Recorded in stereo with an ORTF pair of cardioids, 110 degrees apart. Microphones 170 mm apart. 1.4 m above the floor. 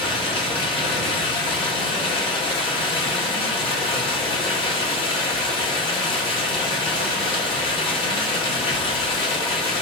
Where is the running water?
30° left, 1.8 m.